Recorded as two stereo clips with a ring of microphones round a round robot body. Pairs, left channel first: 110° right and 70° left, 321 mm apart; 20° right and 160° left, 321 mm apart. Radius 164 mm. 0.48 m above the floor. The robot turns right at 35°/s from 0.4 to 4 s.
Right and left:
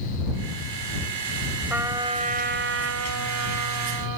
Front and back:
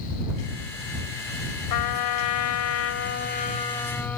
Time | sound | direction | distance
1.7 | a trumpet | 20° right | ?